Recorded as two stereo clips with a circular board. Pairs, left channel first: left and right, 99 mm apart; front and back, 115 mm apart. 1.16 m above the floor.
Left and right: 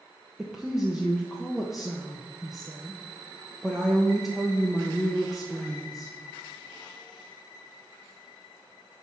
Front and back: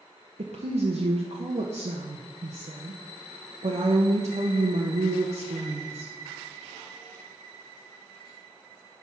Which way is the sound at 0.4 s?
175° right.